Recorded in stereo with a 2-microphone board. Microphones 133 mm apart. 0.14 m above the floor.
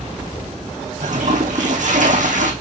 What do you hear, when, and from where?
1.0 s a toilet flushing: 70° right (ahead or behind), 2 m